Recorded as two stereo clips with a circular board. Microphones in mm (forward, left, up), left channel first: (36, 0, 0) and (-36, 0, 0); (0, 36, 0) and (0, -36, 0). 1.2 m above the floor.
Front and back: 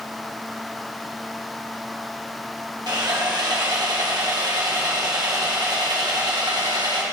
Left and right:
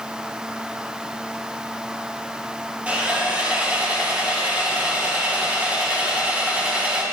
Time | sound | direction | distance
2.9 | sawing | 160° right | 2 m